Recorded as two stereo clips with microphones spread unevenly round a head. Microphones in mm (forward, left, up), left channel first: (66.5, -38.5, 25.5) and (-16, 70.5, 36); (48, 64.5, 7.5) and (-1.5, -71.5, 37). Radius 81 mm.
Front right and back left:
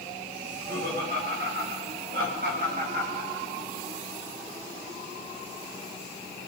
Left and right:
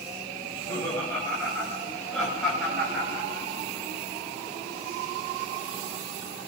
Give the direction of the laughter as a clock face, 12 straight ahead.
7 o'clock.